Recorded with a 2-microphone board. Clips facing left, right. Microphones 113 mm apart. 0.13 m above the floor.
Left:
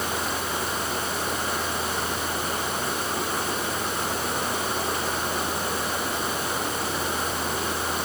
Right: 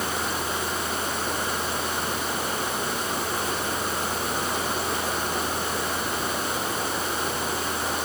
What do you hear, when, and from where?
Only background noise.